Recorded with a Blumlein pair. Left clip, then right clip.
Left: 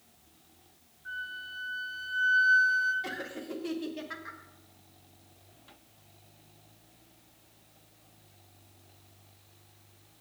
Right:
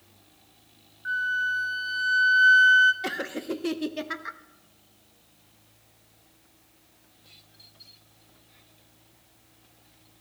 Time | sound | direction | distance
1.1 | a flute | 35° right | 0.8 m
3.0 | laughter | 65° right | 0.6 m